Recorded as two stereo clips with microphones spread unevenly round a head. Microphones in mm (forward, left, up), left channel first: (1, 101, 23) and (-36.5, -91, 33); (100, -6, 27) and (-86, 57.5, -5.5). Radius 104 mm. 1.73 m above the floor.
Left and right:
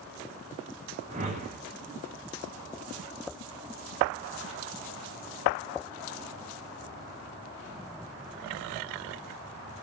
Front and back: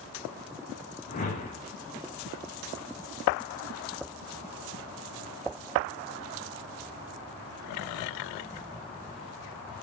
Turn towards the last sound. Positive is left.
turn(degrees=-55)